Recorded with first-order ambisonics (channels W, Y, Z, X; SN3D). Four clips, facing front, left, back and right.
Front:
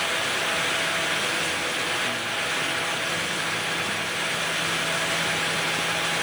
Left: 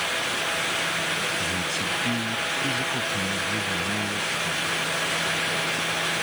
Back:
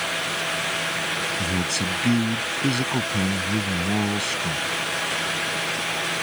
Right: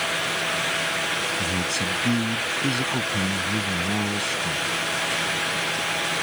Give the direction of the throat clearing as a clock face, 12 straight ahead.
I don't hear throat clearing.